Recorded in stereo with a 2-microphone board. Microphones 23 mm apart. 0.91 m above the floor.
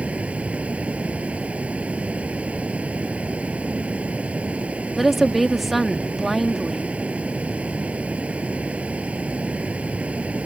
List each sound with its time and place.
0.0 s running water: 75° right (ahead or behind)
5.0 s a woman speaking: centre (ahead or behind)